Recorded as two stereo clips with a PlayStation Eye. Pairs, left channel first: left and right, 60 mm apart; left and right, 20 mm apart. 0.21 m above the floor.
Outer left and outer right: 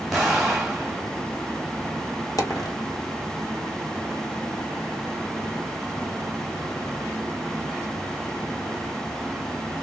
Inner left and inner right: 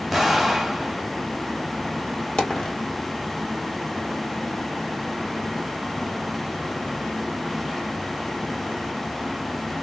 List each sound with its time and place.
0.1 s an explosion: 5° left (ahead or behind), 1.7 m
2.4 s a dropped coin: 70° left (ahead or behind), 1.7 m